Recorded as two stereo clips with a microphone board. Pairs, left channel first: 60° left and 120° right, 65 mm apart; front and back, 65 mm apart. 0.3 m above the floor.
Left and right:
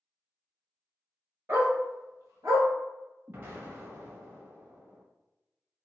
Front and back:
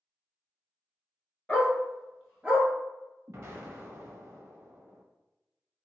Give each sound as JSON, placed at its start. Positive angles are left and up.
{"t": 1.5, "sound": "a dog barking", "azimuth_deg": -75, "distance_m": 1.1}
{"t": 3.3, "sound": "an explosion", "azimuth_deg": -155, "distance_m": 0.6}